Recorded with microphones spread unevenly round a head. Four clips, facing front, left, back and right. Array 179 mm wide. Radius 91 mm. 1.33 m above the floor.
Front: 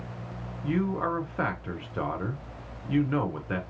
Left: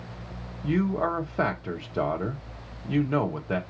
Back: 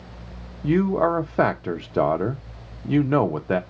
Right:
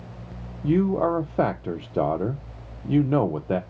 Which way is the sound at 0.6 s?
135° right.